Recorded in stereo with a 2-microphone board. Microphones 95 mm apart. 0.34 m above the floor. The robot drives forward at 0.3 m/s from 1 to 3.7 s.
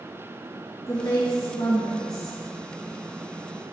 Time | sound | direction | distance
0.9 | a woman speaking | 35° left (ahead or behind) | 2.5 m